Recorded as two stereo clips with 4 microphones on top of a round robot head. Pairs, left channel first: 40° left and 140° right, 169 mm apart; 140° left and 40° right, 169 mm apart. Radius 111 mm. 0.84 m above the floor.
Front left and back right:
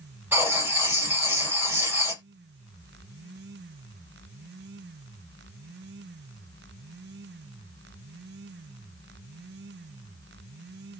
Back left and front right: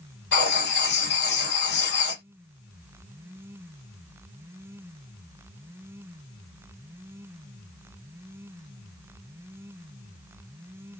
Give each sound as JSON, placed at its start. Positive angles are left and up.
{"t": 0.3, "sound": "writing", "azimuth_deg": 140, "distance_m": 2.5}